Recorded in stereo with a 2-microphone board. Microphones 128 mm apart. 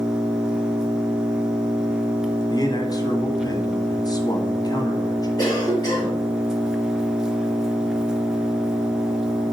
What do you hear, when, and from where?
0.0 s an engine running: 5° right (ahead or behind), 0.9 m
2.5 s a man speaking: 30° left (ahead or behind), 1.2 m
5.4 s a cough: 35° left (ahead or behind), 4 m